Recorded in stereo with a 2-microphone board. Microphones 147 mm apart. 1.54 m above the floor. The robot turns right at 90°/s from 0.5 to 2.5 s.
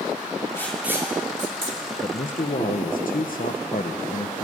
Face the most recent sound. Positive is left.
turn(degrees=85)